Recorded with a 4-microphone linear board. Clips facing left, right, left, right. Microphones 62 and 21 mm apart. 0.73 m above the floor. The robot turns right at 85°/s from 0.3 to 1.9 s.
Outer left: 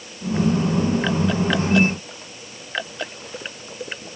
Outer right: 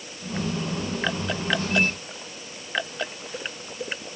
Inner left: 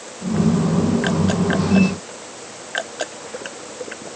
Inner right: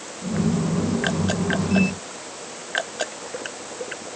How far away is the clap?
No clap in this recording.